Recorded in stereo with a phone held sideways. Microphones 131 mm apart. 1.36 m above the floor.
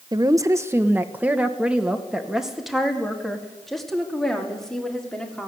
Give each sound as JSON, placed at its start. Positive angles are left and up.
{"t": 0.1, "sound": "a woman speaking", "side_deg": -30, "distance_m": 1.0}